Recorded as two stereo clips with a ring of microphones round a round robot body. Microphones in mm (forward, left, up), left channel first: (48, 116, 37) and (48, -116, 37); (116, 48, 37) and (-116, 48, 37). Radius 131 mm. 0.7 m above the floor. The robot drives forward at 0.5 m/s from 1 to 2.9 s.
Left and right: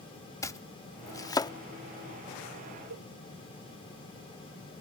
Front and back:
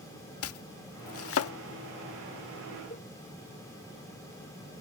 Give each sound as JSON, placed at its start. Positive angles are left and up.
{"t": 0.4, "sound": "chopping", "azimuth_deg": 15}
{"t": 2.9, "sound": "a cowbell", "azimuth_deg": -65}